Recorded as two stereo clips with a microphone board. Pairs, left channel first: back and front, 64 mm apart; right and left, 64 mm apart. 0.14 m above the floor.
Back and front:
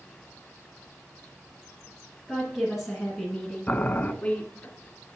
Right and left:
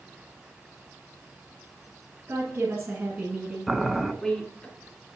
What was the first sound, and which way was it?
A woman speaking, 80° left.